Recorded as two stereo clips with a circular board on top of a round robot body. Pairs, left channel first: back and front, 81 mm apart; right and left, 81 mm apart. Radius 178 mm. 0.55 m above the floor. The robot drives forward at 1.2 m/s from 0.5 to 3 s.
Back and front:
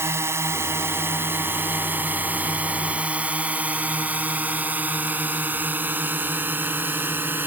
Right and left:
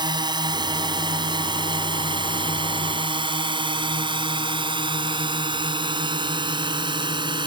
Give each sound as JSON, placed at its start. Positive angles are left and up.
{"t": 0.0, "sound": "a drone", "azimuth_deg": 60}